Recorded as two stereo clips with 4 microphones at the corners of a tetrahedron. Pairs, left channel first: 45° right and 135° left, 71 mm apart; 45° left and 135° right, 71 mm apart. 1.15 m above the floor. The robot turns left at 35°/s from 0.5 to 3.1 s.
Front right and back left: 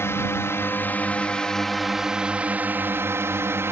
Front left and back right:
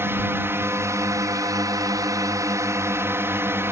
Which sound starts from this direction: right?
A drone, at 0.0 s.